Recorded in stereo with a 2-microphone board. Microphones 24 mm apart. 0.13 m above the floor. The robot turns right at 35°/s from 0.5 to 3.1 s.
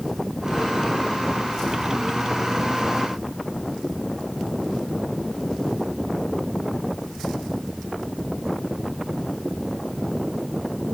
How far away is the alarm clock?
No alarm clock in this recording.